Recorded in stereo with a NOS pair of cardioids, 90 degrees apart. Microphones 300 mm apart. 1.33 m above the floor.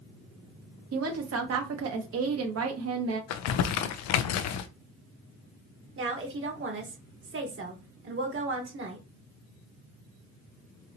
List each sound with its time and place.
0.9 s a woman speaking: 55° right, 1.3 m
3.3 s crumpling: 60° left, 0.5 m
6.0 s a woman speaking: 45° right, 1.6 m